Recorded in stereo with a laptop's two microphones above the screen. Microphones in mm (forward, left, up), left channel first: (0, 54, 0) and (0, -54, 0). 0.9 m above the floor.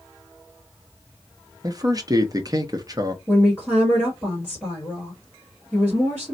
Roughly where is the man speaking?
Right.